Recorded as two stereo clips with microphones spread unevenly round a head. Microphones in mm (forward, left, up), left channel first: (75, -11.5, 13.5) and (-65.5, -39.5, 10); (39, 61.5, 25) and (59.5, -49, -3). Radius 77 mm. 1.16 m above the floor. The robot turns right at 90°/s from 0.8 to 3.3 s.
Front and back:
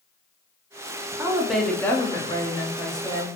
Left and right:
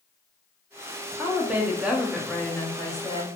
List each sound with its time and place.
1.2 s a woman speaking: 115° right, 0.6 m; by 3.3 s 75° left, 0.6 m